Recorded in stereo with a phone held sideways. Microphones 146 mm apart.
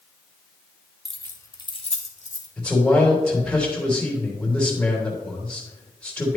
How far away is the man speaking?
About 3 m.